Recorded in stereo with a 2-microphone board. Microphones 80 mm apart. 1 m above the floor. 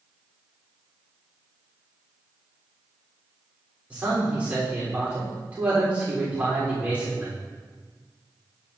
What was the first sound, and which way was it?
A man speaking, 15° right (ahead or behind).